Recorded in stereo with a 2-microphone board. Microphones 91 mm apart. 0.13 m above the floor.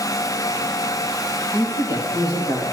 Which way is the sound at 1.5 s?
70° left (ahead or behind).